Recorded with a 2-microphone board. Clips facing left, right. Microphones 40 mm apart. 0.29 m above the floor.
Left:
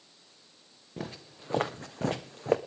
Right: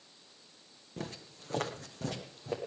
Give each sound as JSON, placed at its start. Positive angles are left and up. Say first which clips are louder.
{"t": 1.0, "sound": "footsteps", "louder": "left 2 dB", "side_deg": 10, "distance_m": 1.2}